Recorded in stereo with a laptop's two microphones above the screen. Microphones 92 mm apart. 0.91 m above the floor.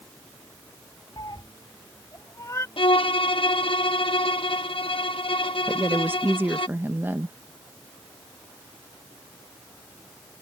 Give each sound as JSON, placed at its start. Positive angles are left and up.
{"t": 1.2, "sound": "a cat meowing", "side_deg": 50}
{"t": 2.8, "sound": "a violin", "side_deg": 70}
{"t": 5.7, "sound": "a woman speaking", "side_deg": -20}